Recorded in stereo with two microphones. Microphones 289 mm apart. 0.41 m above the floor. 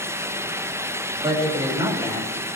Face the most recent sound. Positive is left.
turn(degrees=-20)  # may be behind; listen again after turning